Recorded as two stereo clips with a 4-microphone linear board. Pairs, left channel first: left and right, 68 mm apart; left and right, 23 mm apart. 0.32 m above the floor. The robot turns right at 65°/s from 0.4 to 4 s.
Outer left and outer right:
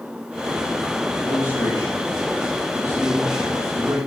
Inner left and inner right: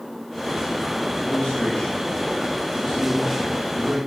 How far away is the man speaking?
About 9.5 m.